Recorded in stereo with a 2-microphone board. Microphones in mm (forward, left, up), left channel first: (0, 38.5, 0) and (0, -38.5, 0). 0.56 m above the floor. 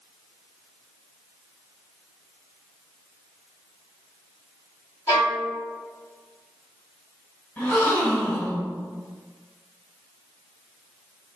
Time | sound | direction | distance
5.1 | a violin | 55° left (ahead or behind) | 1.6 m
7.6 | a gasp | 25° left (ahead or behind) | 1.7 m